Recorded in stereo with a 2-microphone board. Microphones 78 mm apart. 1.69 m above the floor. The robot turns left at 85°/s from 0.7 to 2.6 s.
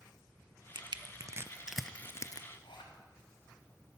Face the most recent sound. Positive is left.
turn(degrees=85)